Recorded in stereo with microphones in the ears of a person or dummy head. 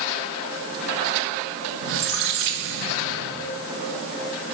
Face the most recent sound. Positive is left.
turn(degrees=-60)  # may be behind; listen again after turning